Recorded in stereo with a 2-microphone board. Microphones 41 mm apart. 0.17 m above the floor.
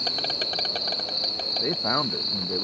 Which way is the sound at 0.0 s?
5° left (ahead or behind).